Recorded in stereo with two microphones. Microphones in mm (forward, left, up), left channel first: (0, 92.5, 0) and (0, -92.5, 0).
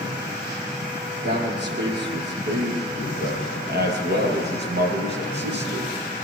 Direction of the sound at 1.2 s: 65° right (ahead or behind).